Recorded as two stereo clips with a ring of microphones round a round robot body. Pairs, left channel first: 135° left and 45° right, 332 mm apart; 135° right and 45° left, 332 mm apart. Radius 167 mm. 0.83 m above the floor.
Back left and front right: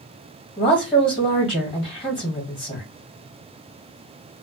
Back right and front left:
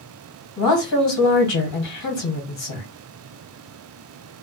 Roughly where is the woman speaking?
Behind right.